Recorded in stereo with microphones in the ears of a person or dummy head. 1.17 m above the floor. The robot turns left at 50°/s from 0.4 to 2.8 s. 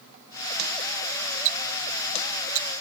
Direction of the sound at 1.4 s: 35° right (ahead or behind).